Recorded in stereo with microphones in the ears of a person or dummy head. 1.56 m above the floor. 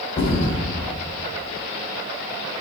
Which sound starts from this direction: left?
A thud, at 0.2 s.